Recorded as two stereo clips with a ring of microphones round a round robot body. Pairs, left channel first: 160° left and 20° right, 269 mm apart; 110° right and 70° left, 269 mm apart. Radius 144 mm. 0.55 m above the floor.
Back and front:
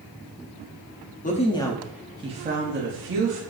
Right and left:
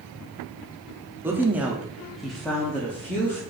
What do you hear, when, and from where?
1.2 s a woman speaking: 140° left, 0.7 m; by 3.4 s 30° right, 1.1 m